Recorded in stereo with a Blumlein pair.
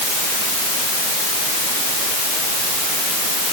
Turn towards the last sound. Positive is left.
No sound to turn to.